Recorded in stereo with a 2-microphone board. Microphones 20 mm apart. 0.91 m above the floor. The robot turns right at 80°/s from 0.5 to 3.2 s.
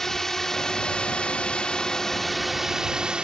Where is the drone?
30° left; by 3.2 s 115° right.